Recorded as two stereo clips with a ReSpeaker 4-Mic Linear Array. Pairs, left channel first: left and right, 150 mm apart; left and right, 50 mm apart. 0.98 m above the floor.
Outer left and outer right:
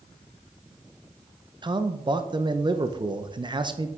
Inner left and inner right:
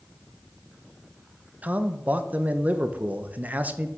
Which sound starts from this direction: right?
A man speaking, at 1.6 s.